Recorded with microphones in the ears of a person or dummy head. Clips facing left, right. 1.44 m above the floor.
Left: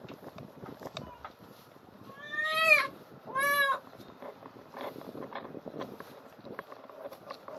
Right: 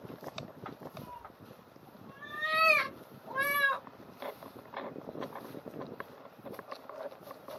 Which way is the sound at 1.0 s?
40° left (ahead or behind).